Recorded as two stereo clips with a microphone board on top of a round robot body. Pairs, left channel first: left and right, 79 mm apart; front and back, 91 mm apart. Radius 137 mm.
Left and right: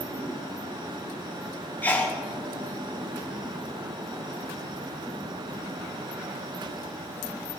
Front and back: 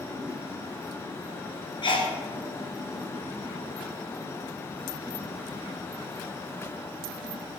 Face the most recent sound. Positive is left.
turn(degrees=25)